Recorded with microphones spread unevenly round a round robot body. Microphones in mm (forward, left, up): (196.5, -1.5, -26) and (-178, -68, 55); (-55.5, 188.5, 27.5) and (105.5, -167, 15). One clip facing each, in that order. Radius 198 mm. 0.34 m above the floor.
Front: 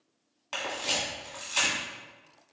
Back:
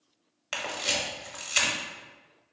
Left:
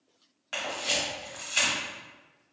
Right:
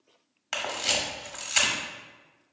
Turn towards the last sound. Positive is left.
turn(degrees=-125)